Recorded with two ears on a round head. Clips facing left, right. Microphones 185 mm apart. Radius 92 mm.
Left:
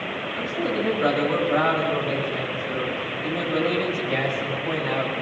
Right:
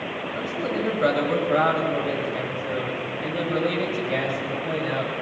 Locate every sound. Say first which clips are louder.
0.3 s a man speaking: left 2 dB; 50° right (ahead or behind), 9 m; by 5.2 s 25° right (ahead or behind), 10.5 m